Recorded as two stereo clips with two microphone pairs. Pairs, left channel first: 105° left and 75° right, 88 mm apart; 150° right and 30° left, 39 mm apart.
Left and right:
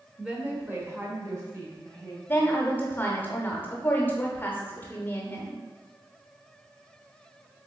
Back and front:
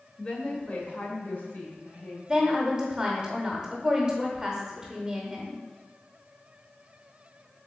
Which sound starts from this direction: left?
A woman speaking, at 2.3 s.